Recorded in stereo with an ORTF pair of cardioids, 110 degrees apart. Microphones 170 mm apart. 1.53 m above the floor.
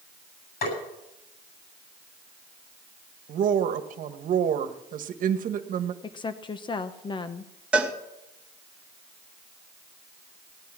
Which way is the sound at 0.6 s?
60° left.